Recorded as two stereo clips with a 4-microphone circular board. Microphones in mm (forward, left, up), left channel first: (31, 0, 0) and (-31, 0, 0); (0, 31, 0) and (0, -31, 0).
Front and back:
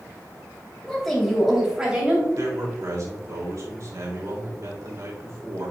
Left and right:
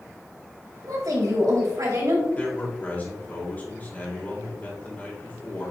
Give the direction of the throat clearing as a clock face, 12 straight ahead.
No throat clearing in this recording.